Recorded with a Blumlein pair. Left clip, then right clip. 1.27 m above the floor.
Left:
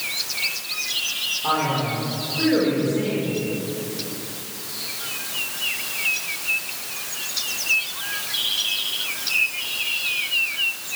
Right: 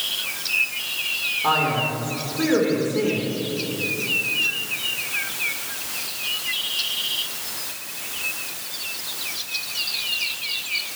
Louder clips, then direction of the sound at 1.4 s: Right 3 dB; 15° right.